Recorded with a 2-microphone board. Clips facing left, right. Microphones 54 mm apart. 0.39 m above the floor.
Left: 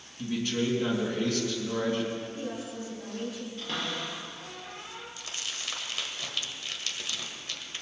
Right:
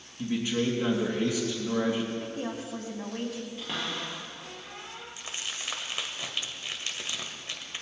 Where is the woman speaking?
70° right (ahead or behind), 3 m.